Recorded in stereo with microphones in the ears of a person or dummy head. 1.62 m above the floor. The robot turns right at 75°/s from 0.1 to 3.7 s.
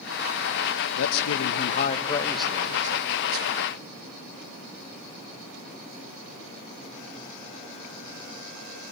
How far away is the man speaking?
About 0.7 m.